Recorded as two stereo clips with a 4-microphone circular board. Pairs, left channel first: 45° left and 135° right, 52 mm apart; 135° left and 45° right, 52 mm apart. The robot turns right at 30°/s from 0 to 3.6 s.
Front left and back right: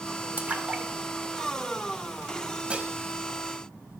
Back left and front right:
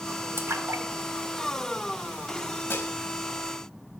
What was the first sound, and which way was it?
A splash, 80° right.